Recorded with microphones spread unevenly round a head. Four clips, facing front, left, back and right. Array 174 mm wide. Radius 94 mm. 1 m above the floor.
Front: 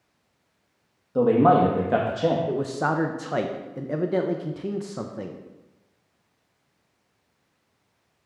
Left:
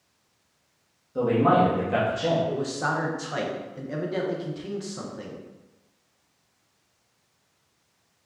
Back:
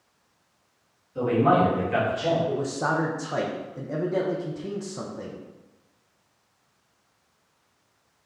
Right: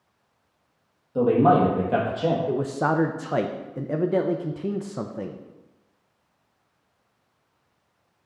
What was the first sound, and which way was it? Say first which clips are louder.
A man speaking: right 2 dB, front 3 dB; 20° right.